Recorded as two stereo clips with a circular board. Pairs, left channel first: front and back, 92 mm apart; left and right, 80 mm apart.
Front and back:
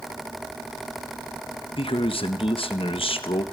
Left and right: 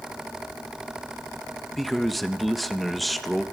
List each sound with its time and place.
1.8 s a man speaking: straight ahead, 1.1 m